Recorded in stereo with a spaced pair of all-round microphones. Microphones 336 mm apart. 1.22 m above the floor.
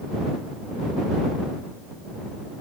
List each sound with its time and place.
Only background noise.